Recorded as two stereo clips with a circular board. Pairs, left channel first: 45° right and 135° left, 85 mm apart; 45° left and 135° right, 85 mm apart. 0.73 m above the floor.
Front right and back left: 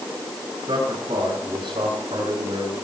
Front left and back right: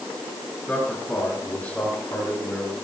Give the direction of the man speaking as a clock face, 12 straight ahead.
8 o'clock.